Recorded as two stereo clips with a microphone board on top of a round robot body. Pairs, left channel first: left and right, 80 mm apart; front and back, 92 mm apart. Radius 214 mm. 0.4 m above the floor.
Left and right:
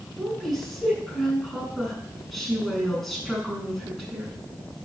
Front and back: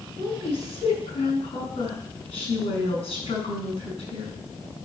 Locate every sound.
0.2 s a woman speaking: straight ahead, 7.5 m